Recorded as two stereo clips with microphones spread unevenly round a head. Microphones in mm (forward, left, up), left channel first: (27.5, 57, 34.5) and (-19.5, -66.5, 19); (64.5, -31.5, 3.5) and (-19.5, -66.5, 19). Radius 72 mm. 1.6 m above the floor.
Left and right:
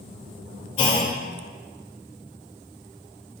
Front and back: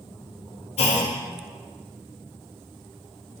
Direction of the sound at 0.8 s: 20° left.